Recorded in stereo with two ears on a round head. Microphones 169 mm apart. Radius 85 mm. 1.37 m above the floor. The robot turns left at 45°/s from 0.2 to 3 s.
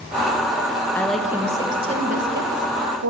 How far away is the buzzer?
I don't hear a buzzer.